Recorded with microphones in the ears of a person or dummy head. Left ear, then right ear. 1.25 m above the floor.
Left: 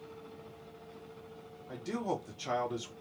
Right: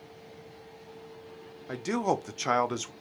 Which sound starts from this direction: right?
A man speaking, at 1.7 s.